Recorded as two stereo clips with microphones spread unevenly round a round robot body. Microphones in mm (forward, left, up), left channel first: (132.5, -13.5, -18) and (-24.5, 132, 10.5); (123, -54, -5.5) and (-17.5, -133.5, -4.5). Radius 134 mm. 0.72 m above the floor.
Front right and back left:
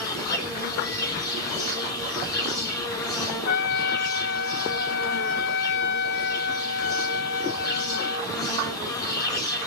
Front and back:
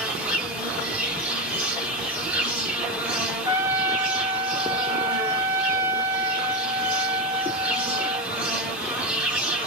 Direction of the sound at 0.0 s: 75° right.